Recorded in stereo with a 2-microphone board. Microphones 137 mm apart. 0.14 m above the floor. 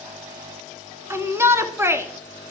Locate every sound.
1.1 s a shout: 20° right (ahead or behind), 1.1 m